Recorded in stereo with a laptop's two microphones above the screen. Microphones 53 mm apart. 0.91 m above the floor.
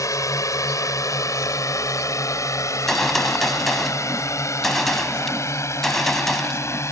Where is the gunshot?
5° left (ahead or behind).